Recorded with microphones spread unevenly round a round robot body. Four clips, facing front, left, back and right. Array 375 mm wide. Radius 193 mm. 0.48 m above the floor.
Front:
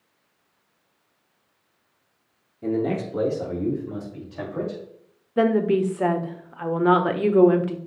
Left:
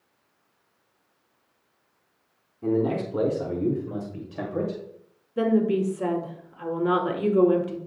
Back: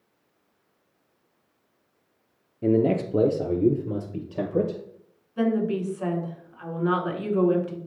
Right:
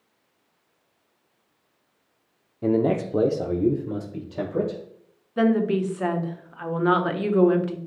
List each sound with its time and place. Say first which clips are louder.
2.6 s a man speaking: right 3 dB, back 3 dB; 135° right, 0.9 m; by 4.8 s 155° right, 2.5 m
5.4 s a woman speaking: right 1 dB, front 5 dB; 10° left, 1.5 m